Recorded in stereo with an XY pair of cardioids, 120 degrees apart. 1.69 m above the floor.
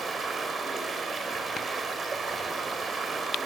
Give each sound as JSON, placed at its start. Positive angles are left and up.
{"t": 0.0, "sound": "running water", "azimuth_deg": -30, "distance_m": 5.0}